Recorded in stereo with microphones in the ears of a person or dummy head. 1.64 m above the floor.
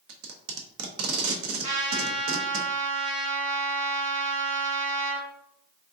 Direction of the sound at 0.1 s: 85° right.